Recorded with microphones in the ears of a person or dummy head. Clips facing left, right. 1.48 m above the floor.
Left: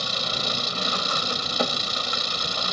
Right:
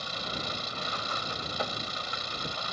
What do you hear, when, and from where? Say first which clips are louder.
0.0 s an engine running: left 6 dB; 75° left (ahead or behind)